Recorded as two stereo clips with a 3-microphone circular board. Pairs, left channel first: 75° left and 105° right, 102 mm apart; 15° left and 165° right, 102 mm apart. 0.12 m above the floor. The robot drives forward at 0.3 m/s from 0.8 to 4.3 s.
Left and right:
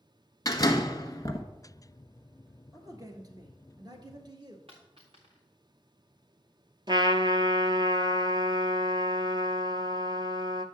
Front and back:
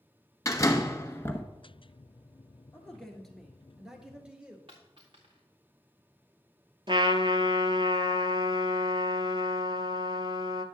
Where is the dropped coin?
130° right, 3.5 m.